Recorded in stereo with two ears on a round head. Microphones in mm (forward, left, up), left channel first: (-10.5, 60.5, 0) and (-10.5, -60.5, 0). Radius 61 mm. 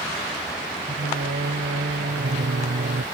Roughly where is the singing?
Right.